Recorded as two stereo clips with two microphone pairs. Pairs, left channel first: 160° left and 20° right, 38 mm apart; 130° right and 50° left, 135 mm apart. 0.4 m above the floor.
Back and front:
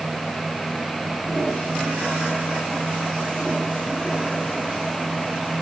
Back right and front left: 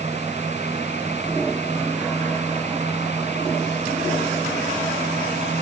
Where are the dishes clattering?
I don't hear dishes clattering.